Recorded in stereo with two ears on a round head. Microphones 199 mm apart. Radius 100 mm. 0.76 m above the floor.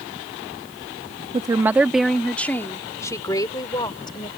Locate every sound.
1.3 s a woman speaking: 20° right (ahead or behind); by 4.3 s 20° left (ahead or behind)